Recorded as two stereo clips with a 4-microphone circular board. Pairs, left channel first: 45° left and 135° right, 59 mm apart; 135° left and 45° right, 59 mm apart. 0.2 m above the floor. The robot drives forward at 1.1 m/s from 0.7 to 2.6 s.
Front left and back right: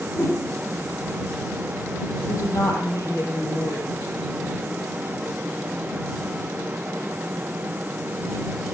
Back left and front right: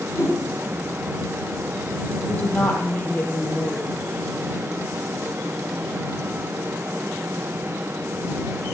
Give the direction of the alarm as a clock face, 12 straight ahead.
No alarm in this recording.